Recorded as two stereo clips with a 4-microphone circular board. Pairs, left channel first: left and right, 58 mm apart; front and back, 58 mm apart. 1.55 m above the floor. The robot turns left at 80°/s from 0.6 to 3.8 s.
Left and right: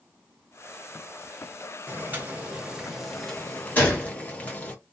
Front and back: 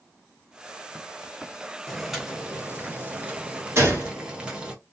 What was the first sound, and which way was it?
Boiling, 80° right.